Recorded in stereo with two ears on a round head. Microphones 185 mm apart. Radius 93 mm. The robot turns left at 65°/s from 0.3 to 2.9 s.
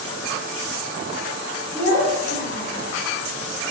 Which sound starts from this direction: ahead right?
A child speaking, at 1.7 s.